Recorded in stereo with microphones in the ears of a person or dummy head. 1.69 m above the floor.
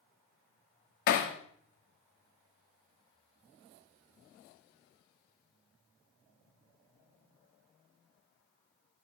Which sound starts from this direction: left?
Hammering, at 1.1 s.